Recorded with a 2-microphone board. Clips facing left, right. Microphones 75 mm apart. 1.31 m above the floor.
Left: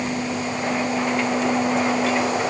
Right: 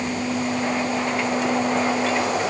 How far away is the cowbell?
No cowbell in this recording.